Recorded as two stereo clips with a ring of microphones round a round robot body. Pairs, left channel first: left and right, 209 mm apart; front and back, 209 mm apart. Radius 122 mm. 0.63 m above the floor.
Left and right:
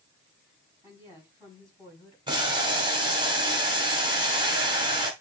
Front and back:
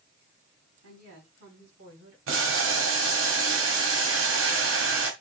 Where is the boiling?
160° right, 2 m.